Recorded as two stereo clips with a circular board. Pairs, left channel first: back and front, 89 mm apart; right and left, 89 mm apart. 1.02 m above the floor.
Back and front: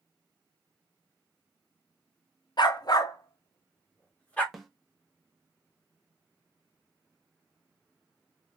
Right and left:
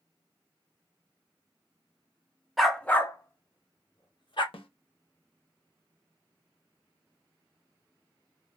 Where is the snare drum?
90° right, 0.7 m.